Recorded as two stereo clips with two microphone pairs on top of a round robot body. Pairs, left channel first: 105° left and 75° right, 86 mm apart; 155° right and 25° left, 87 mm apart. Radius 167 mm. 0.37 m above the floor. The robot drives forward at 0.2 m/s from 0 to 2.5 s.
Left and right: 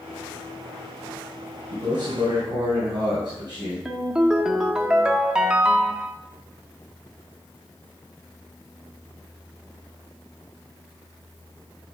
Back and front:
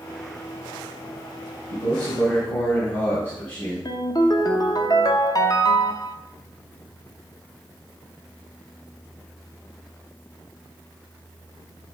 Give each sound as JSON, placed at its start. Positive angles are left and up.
{"t": 1.7, "sound": "a man speaking", "azimuth_deg": -115, "distance_m": 2.5}
{"t": 3.9, "sound": "a ringtone", "azimuth_deg": -145, "distance_m": 0.8}